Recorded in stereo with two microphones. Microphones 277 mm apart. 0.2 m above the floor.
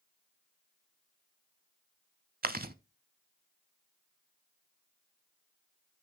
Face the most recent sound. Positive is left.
turn(degrees=-35)  # may be behind; listen again after turning